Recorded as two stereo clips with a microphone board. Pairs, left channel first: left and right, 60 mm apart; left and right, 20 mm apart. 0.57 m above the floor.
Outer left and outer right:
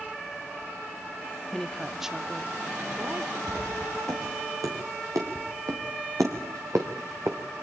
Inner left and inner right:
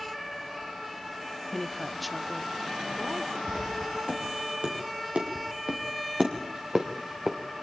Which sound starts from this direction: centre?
A woman speaking, at 1.5 s.